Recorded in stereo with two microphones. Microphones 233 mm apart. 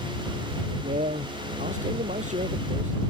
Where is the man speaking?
30° right (ahead or behind).